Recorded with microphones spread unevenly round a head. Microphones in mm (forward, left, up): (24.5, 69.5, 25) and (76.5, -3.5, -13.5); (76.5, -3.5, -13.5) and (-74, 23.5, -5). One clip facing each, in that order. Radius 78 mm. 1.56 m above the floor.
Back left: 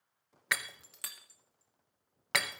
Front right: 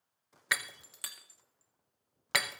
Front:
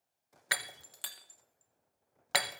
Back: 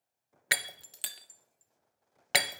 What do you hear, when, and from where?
0.5 s breaking glass: 175° left, 0.7 m